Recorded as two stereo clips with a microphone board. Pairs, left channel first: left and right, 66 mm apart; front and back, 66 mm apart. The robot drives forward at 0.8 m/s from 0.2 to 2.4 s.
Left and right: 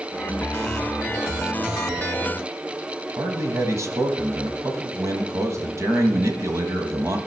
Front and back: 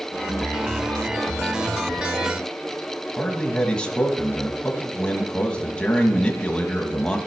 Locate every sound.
3.2 s a man speaking: 75° right, 1.4 m